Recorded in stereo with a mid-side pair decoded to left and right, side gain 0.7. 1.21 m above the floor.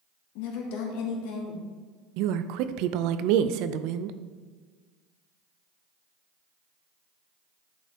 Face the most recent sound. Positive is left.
turn(degrees=-65)